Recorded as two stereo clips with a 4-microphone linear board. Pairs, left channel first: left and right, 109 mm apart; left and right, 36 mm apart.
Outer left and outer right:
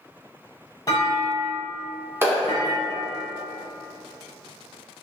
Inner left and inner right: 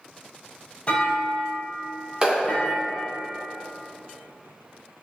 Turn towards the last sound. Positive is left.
turn(degrees=-25)  # may be behind; listen again after turning